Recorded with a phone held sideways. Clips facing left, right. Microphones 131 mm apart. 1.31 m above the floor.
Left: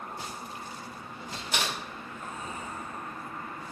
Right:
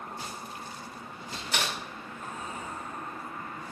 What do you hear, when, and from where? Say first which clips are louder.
1.5 s typing on a keyboard: even; 25° left (ahead or behind), 2.5 m